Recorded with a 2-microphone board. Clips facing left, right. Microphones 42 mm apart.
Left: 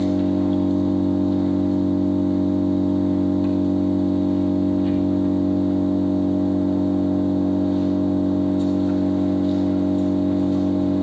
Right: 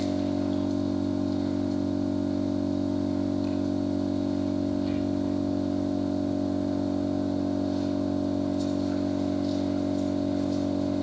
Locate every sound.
0.0 s an engine running: 30° left (ahead or behind), 3 m